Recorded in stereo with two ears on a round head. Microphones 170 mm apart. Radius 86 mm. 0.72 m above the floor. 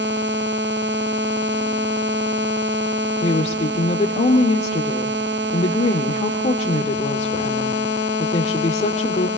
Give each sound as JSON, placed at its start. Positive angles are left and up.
{"t": 3.2, "sound": "a woman speaking", "side_deg": 35, "distance_m": 2.0}